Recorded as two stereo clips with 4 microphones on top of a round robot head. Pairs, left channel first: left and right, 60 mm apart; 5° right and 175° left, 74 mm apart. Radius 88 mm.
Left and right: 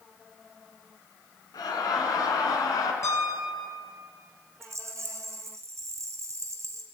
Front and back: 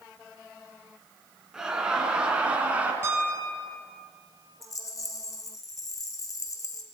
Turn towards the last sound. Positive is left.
turn(degrees=-50)